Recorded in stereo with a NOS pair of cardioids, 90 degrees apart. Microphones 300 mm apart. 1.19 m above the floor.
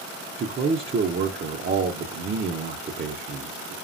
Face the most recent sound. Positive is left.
turn(degrees=-35)